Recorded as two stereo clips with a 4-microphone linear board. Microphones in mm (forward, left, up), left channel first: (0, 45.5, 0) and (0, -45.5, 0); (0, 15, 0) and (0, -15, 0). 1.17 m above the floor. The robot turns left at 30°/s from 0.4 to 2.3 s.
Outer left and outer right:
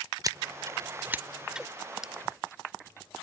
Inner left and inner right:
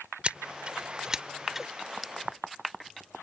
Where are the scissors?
45° right (ahead or behind); by 1.7 s 5° right (ahead or behind).